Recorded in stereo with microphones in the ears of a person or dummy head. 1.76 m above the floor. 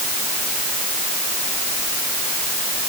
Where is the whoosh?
I don't hear a whoosh.